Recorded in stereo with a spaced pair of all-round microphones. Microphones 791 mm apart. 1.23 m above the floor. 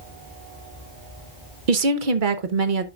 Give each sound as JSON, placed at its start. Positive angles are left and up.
{"t": 1.7, "sound": "a woman speaking", "side_deg": -85, "distance_m": 1.0}